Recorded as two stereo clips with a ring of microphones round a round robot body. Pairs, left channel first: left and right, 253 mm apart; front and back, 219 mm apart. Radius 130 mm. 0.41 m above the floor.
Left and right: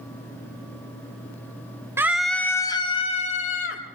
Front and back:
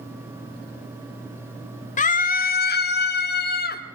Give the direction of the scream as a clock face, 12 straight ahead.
1 o'clock.